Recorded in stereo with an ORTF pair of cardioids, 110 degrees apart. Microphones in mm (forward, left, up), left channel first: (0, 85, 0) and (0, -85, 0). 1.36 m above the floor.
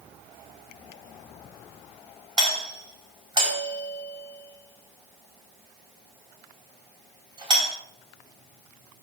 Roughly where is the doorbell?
Ahead right.